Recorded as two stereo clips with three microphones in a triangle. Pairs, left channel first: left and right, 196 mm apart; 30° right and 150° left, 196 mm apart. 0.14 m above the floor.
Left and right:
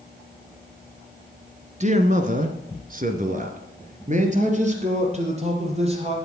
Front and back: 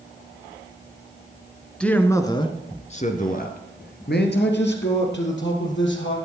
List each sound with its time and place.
1.8 s a man speaking: 115° right, 1.5 m; by 6.2 s 35° right, 4 m